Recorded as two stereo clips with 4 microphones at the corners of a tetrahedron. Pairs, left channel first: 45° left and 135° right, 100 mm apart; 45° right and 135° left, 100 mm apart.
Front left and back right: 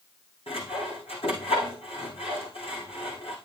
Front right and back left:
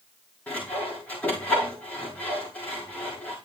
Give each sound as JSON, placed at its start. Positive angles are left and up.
{"t": 0.5, "sound": "sawing", "azimuth_deg": 30, "distance_m": 9.0}